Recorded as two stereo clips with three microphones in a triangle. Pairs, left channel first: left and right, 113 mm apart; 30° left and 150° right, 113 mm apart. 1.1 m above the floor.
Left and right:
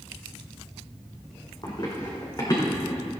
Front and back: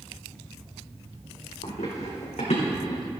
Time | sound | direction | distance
1.6 | running footsteps | 40° left | 3 m